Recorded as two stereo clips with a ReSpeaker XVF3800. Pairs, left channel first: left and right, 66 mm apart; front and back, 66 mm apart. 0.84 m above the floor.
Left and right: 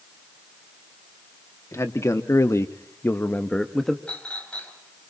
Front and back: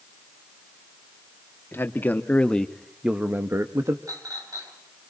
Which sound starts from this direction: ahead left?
A man speaking, at 1.7 s.